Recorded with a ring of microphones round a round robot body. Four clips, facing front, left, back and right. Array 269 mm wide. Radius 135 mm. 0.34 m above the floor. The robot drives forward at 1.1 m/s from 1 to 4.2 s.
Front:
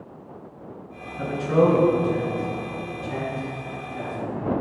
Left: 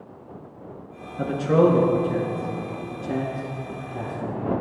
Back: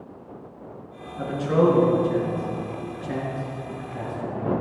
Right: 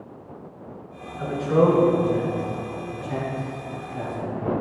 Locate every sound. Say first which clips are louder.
1.2 s a man speaking: left 1 dB, front 1 dB; 90° left, 5.5 m; by 4.5 s 120° left, 6 m